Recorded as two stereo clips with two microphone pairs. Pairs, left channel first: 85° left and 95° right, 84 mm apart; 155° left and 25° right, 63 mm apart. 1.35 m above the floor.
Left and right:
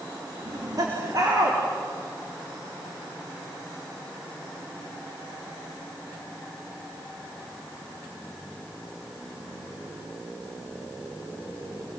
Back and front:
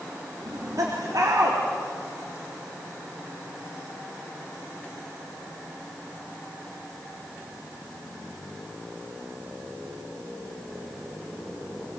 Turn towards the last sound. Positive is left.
turn(degrees=-50)